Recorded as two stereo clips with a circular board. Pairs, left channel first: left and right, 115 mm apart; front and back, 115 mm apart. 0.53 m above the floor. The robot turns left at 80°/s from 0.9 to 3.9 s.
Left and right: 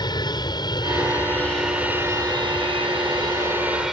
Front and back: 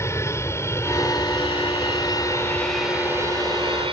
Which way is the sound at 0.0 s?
55° left.